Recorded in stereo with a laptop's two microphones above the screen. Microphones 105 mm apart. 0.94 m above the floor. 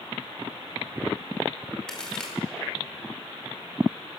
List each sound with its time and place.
1.9 s a crack: 10° left (ahead or behind), 2 m